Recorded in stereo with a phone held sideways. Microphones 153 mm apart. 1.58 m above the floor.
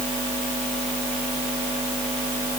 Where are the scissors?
I don't hear scissors.